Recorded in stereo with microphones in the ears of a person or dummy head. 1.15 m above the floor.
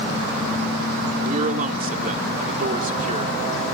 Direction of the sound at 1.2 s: 45° right (ahead or behind).